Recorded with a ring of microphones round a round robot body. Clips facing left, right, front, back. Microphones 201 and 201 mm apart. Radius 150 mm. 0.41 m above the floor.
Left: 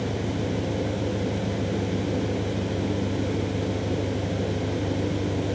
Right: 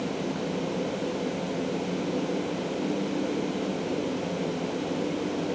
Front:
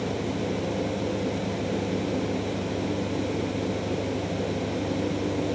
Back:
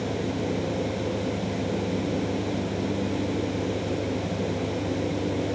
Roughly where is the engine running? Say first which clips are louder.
Left 2 dB, back 1 dB; left.